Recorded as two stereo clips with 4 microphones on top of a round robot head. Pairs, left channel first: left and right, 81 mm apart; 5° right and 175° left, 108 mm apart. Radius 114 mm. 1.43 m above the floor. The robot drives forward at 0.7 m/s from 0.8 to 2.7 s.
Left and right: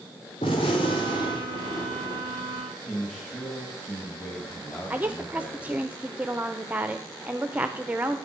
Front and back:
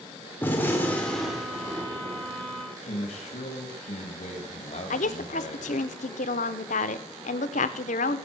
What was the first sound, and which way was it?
A gunshot, 65° left.